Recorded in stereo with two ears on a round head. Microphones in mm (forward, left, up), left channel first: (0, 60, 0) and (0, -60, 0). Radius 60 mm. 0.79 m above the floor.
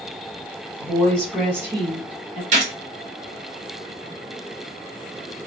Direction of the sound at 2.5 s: 55° right (ahead or behind).